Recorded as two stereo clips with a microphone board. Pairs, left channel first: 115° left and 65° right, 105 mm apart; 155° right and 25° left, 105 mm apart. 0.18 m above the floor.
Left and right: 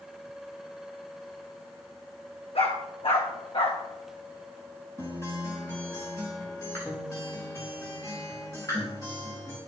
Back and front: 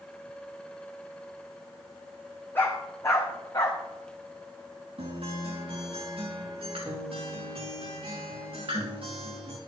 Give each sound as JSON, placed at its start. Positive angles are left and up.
{"t": 2.5, "sound": "a dog barking", "azimuth_deg": 135, "distance_m": 2.5}
{"t": 5.0, "sound": "a guitar", "azimuth_deg": 50, "distance_m": 4.5}